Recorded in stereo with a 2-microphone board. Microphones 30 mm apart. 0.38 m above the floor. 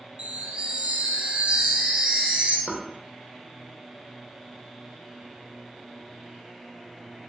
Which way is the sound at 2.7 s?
20° right (ahead or behind).